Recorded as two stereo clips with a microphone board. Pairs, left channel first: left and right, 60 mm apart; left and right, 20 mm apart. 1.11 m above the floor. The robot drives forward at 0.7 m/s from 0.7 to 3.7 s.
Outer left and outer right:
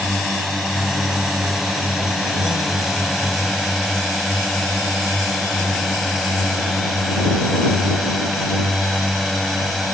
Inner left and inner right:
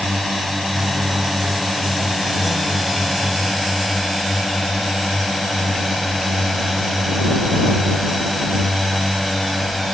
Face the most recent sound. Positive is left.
turn(degrees=0)  # may be behind; listen again after turning